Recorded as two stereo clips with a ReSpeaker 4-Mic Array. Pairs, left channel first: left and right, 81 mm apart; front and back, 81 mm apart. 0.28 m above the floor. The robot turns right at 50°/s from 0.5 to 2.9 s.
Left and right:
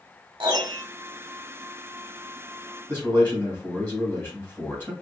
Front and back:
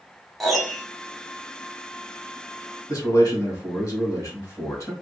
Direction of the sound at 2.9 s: 35° left.